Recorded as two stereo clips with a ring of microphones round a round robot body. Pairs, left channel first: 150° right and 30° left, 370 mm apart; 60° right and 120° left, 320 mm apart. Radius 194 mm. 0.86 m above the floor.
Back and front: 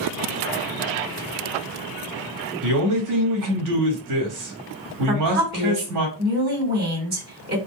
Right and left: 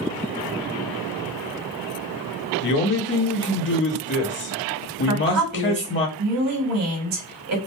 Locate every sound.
2.6 s a man speaking: 5° right, 1.6 m
5.1 s a woman speaking: 95° left, 1.6 m